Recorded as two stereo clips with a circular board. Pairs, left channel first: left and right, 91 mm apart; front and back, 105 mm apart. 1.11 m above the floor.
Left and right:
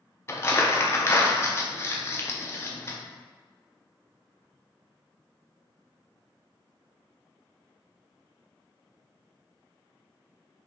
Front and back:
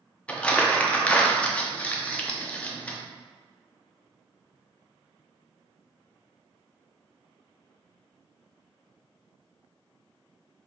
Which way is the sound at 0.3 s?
70° left.